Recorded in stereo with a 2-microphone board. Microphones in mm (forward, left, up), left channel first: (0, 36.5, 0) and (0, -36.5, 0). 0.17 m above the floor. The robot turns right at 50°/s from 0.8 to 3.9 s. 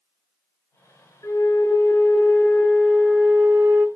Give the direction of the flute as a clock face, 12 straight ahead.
9 o'clock.